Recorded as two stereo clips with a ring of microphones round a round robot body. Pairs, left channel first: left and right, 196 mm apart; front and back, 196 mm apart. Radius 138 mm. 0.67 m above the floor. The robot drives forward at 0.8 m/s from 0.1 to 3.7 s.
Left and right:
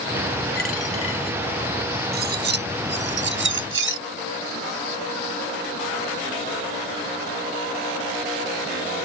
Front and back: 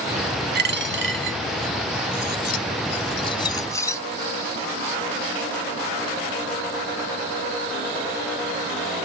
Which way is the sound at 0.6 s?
145° left.